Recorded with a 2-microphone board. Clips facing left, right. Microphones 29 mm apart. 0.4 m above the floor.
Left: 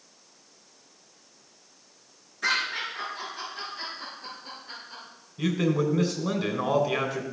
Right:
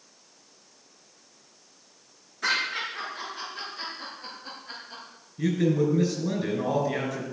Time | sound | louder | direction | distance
2.4 | laughter | even | centre (ahead or behind) | 6 m
5.4 | a man speaking | right 1 dB | 50° left (ahead or behind) | 3 m